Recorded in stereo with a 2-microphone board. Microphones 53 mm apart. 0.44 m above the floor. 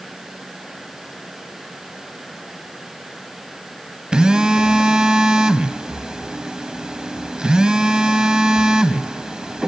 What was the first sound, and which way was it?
A phone buzzing, 15° right (ahead or behind).